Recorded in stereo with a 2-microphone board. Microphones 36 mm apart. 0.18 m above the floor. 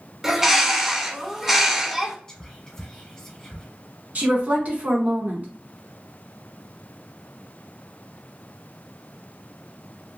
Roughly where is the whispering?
Centre.